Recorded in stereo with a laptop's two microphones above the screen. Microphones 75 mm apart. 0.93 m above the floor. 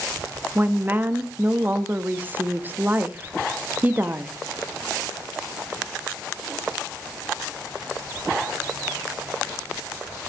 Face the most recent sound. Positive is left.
turn(degrees=-25)  # may be behind; listen again after turning